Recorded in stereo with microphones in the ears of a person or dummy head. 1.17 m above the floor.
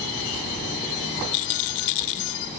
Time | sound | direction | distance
1.3 | a rattle | 65° left (ahead or behind) | ?